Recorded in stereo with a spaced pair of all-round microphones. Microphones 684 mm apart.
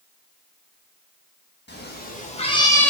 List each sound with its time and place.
1.7 s a cat meowing: 15° left (ahead or behind), 1.1 m; by 2.9 s centre (ahead or behind), 0.7 m